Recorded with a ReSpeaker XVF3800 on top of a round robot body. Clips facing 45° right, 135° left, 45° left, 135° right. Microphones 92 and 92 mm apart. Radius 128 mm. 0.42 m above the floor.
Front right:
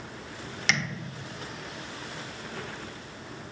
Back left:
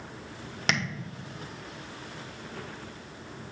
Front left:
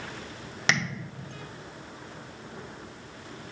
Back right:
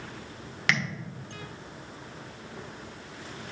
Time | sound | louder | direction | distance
0.7 | tapping | even, front left 1 dB | 105° left | 1.4 m